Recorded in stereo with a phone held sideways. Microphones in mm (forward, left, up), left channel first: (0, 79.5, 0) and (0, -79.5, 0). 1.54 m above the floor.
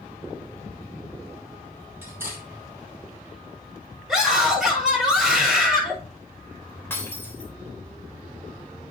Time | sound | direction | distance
2.0 | cutlery clinking | 15° right (ahead or behind) | 5.5 m
4.1 | a scream | centre (ahead or behind) | 6.5 m
6.9 | breaking glass | 15° left (ahead or behind) | 3.5 m